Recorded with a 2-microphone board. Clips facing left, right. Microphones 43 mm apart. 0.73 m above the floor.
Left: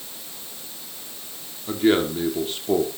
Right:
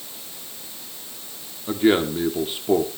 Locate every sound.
1.7 s a man speaking: 10° right (ahead or behind), 1.9 m